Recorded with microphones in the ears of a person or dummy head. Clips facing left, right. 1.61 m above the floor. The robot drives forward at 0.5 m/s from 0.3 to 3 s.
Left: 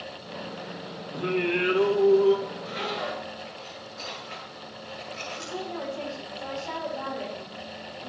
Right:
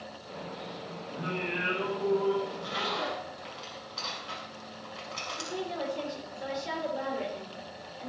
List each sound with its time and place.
1.1 s singing: 70° left (ahead or behind), 3.5 m; by 2.4 s 75° left (ahead or behind), 3.5 m
2.5 s a zipper: 70° right (ahead or behind), 5.5 m; by 6.1 s 75° right (ahead or behind), 5.5 m
5.4 s a woman speaking: 25° right (ahead or behind), 6 m